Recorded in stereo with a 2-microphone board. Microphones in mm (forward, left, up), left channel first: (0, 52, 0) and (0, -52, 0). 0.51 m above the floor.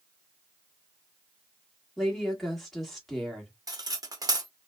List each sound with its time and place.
2.0 s a woman speaking: centre (ahead or behind), 1.3 m
3.7 s cutlery clinking: 35° right (ahead or behind), 0.6 m